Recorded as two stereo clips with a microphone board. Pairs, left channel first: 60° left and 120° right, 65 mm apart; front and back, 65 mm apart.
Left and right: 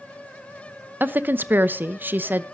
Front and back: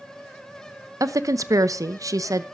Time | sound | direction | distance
1.0 | a woman speaking | 175° right | 0.8 m